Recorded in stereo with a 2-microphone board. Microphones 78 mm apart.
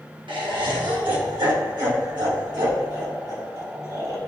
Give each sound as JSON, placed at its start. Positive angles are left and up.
{"t": 0.3, "sound": "laughter", "side_deg": -80, "distance_m": 1.8}